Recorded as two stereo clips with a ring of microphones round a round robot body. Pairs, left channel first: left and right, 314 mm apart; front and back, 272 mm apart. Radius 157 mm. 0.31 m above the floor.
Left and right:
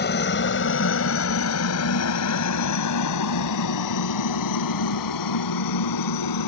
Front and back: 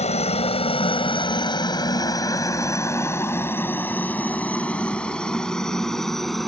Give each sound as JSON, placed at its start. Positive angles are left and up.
{"t": 0.0, "sound": "a helicopter", "azimuth_deg": 50}